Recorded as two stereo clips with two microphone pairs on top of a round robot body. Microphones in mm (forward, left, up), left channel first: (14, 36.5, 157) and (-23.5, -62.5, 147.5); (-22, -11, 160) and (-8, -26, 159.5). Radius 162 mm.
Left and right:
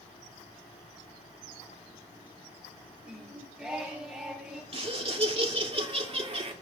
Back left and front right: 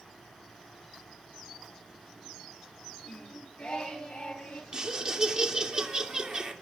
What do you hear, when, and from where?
3.0 s singing: 170° left, 3 m
4.7 s laughter: 100° right, 2.5 m